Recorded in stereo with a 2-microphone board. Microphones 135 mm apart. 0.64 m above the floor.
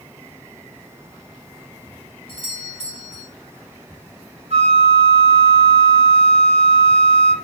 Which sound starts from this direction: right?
A flute, at 4.5 s.